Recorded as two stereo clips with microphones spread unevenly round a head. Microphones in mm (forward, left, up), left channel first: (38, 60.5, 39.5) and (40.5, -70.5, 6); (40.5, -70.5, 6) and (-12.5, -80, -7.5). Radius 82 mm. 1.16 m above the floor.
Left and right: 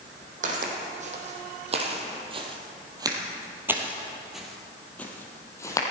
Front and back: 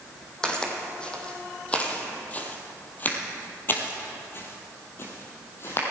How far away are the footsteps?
About 3 m.